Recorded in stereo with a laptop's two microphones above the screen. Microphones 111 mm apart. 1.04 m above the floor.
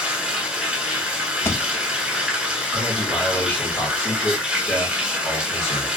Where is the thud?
20° left (ahead or behind), 0.5 m.